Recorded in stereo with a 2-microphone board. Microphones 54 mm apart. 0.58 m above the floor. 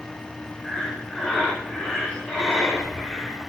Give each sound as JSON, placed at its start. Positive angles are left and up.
{"t": 0.6, "sound": "breathing", "side_deg": 10, "distance_m": 1.7}